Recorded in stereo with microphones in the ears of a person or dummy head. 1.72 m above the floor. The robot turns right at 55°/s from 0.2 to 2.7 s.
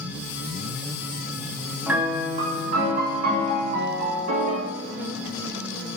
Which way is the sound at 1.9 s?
170° right.